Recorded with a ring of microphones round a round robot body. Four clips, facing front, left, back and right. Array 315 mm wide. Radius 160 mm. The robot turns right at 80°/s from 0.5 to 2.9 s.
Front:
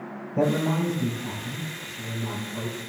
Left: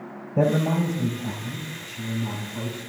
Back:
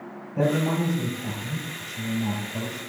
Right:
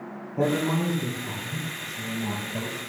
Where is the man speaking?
80° left, 7 m; by 2.8 s 95° right, 7 m.